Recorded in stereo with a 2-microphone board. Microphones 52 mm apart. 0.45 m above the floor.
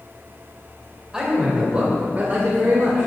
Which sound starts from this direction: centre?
A man speaking, at 1.1 s.